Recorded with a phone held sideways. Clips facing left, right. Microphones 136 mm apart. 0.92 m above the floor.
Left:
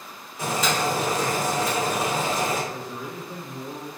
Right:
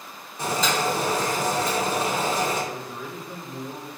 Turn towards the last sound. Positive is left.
turn(degrees=10)  # may be behind; listen again after turning